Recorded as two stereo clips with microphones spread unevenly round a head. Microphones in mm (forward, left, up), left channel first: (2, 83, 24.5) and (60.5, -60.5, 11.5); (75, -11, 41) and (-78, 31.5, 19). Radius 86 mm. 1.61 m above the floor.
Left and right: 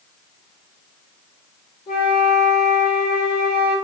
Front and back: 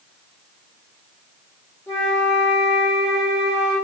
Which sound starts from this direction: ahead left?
A flute, at 1.9 s.